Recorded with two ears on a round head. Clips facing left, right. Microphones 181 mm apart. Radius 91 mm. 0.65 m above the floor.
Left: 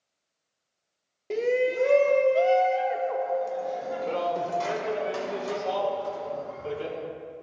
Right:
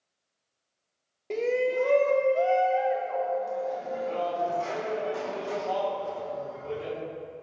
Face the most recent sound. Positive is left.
turn(degrees=75)  # may be behind; listen again after turning